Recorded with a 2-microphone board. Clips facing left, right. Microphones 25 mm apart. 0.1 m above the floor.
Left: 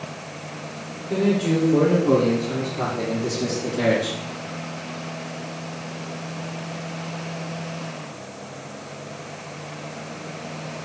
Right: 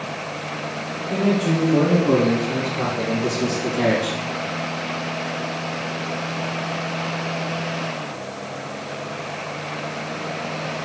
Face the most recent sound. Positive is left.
turn(degrees=-5)  # may be behind; listen again after turning